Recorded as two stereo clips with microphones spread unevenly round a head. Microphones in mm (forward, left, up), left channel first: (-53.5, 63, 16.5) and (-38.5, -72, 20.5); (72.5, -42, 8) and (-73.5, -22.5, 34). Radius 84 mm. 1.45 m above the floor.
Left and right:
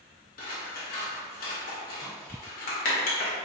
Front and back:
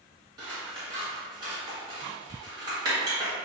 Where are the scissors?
110° left, 1.1 m.